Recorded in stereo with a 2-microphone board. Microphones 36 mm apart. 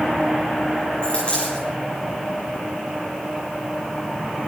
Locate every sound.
1.0 s a dropped coin: 35° left (ahead or behind), 9 m